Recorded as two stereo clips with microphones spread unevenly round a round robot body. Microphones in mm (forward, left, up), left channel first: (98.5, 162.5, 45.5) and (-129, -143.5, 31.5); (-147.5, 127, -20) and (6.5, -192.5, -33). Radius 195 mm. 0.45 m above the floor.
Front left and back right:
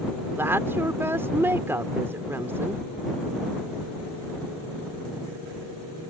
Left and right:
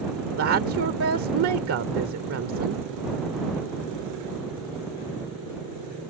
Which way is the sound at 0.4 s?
45° right.